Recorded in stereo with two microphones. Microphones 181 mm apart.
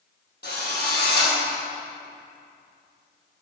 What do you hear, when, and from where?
0.4 s a drill: 60° left (ahead or behind), 3 m